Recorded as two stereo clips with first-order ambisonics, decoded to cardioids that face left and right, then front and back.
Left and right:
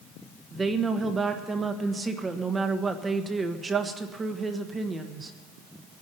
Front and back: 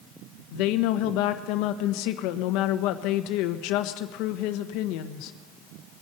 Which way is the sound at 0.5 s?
15° right.